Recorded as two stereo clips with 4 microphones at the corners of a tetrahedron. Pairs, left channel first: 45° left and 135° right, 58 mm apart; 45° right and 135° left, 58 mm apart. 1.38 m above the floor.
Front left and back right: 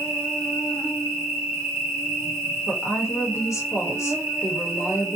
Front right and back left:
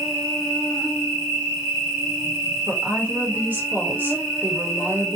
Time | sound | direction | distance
0.0 | an insect | 140° right | 1.2 m
2.7 | a woman speaking | 80° left | 0.9 m